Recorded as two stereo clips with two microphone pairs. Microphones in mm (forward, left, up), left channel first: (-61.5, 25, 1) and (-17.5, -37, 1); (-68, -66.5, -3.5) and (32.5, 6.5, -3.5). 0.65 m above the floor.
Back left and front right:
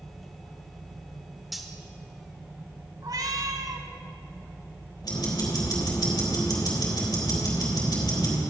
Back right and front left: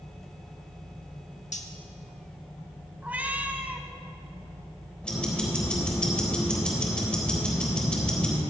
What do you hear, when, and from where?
1.5 s cutlery clinking: 145° right, 1.0 m
3.0 s a cat meowing: 40° right, 1.0 m
5.0 s ticking: 135° left, 3.5 m